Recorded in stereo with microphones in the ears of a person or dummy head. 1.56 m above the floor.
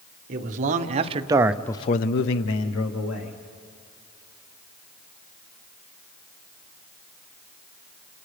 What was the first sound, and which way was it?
A man speaking, 50° right (ahead or behind).